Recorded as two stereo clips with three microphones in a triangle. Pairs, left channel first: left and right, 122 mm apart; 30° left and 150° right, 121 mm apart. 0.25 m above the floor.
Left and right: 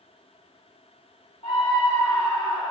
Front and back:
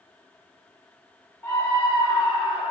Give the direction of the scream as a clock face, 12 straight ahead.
9 o'clock.